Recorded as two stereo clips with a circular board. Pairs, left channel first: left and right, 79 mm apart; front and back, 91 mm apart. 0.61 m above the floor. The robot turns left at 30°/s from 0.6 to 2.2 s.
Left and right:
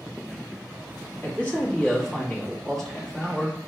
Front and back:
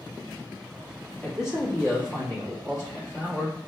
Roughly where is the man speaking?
Ahead left.